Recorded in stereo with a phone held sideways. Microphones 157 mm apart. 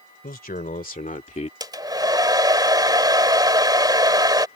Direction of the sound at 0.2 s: 70° left (ahead or behind).